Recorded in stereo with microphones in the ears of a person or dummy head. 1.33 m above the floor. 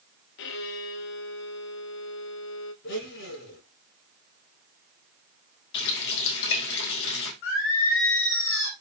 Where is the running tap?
65° left (ahead or behind), 2.0 m.